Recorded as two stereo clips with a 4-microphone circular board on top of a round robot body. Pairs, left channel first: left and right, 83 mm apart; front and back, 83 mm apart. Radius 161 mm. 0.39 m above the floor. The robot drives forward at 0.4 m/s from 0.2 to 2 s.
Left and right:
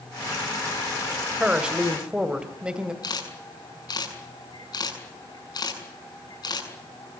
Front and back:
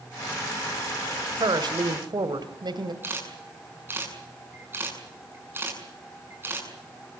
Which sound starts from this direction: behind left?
A camera shutter, at 3.0 s.